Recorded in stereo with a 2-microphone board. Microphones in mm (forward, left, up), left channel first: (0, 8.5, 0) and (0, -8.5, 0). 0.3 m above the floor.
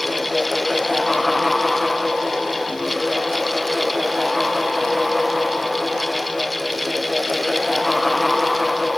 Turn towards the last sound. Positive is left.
No sound to turn to.